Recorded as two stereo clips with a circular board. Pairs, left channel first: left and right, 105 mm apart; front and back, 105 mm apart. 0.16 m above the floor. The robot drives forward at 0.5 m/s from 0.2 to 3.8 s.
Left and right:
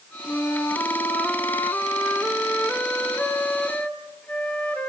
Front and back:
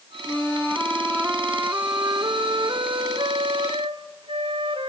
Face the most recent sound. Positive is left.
turn(degrees=165)